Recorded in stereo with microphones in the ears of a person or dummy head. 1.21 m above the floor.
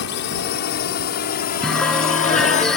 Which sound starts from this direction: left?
A drone, at 0.0 s.